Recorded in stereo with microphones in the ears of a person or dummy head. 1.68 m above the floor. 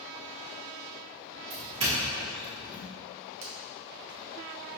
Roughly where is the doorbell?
Right.